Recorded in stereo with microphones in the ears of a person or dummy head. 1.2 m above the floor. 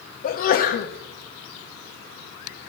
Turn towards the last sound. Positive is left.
turn(degrees=45)  # may be behind; listen again after turning